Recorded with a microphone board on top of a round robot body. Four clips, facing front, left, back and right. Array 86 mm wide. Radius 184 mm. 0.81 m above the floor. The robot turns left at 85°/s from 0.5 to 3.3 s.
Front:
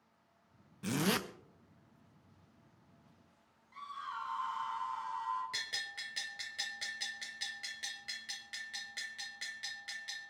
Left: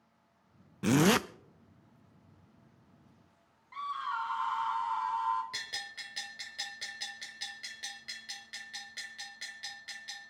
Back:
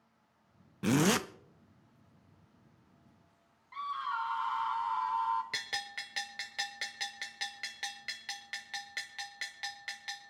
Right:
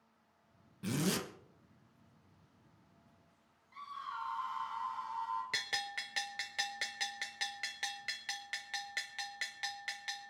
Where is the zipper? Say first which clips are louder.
Left 10 dB, back 6 dB; 130° left, 0.6 m; by 1.2 s 95° left, 0.6 m.